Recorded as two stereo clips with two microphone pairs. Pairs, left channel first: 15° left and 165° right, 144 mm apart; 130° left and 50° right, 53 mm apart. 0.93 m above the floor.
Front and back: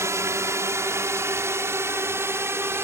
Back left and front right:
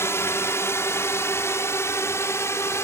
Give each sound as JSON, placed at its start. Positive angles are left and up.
{"t": 0.0, "sound": "a drone", "azimuth_deg": 125}